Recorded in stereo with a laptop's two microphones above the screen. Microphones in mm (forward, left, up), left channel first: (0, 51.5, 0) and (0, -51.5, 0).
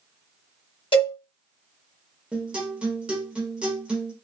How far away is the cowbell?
About 1.5 m.